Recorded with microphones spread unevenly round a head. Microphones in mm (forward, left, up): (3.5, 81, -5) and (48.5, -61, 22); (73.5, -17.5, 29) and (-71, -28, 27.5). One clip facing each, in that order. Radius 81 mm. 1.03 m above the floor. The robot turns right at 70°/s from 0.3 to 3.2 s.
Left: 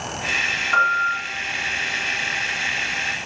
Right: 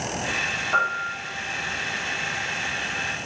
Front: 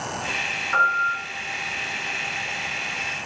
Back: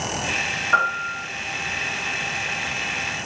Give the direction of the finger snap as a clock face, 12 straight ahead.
No finger snap in this recording.